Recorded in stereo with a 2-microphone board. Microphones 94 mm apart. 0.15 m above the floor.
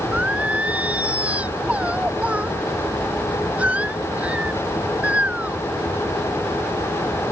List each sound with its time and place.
0.1 s singing: 15° right (ahead or behind)